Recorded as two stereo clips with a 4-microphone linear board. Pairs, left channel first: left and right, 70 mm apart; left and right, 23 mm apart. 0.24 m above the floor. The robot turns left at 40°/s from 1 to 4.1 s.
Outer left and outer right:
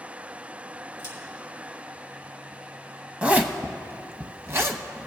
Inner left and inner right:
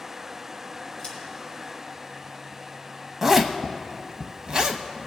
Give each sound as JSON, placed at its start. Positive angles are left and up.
{"t": 1.0, "sound": "scissors", "side_deg": 45, "distance_m": 4.0}
{"t": 3.2, "sound": "a zipper", "side_deg": -15, "distance_m": 0.8}